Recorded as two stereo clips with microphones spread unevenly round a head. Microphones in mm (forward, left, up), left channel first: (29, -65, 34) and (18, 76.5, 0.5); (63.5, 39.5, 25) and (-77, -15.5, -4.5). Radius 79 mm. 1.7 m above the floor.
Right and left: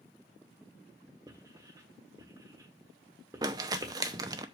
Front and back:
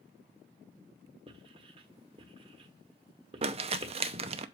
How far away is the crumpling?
About 0.6 m.